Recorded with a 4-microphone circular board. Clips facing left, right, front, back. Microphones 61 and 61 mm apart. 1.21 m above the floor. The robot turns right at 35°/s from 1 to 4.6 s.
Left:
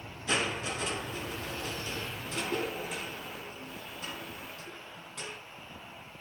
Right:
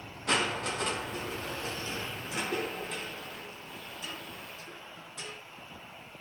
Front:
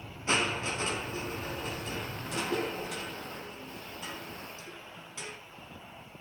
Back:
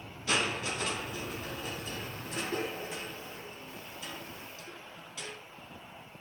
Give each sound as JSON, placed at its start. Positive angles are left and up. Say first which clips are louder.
{"t": 0.3, "sound": "crushing", "louder": "right 2 dB, front 2 dB", "azimuth_deg": -60, "distance_m": 4.5}